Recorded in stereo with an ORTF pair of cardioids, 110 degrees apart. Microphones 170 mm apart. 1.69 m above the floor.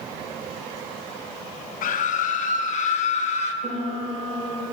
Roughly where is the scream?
Ahead left.